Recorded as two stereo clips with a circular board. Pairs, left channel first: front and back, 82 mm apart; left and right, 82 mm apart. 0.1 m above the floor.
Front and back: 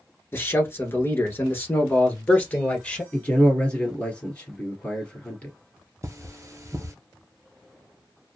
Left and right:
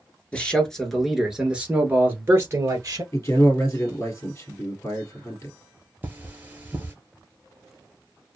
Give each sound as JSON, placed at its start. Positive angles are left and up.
{"t": 0.3, "sound": "a man speaking", "azimuth_deg": 30, "distance_m": 1.2}
{"t": 3.1, "sound": "a man speaking", "azimuth_deg": 65, "distance_m": 1.8}
{"t": 6.0, "sound": "cutlery clinking", "azimuth_deg": -150, "distance_m": 1.1}